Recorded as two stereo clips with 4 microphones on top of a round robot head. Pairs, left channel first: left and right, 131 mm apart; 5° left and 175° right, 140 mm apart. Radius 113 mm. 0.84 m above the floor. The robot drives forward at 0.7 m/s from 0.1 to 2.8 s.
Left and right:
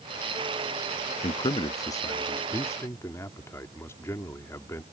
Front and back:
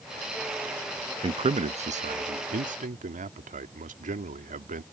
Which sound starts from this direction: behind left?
A man speaking, at 1.2 s.